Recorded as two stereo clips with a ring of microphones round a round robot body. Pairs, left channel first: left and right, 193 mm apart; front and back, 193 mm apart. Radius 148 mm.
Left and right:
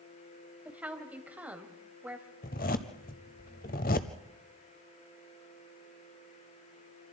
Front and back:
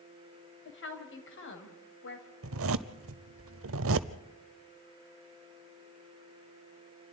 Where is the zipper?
150° left, 0.6 m.